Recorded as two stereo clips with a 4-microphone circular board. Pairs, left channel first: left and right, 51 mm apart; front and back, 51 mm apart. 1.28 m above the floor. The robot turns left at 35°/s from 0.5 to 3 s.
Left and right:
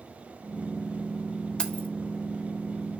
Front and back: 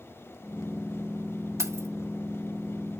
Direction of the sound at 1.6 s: 165° left.